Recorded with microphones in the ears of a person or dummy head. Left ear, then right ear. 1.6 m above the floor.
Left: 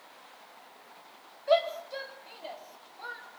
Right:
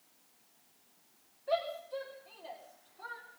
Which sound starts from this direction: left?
A shout, at 1.5 s.